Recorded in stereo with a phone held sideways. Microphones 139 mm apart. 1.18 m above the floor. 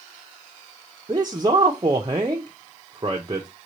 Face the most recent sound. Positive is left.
turn(degrees=-30)  # may be behind; listen again after turning